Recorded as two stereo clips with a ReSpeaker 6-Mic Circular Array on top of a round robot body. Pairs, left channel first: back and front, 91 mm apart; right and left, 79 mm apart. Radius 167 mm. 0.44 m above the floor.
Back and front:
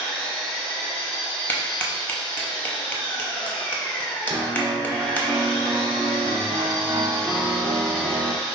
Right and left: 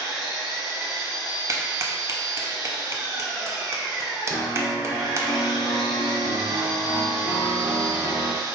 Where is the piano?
105° right, 1.5 m.